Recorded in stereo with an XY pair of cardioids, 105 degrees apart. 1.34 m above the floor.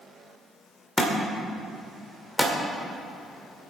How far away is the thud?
About 2.5 m.